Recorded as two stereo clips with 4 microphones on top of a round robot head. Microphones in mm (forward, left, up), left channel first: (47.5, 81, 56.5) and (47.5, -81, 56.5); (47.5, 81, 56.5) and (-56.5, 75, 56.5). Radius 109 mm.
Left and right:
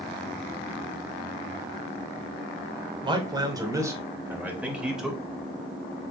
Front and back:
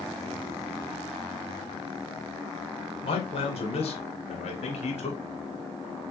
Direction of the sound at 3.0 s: 30° right.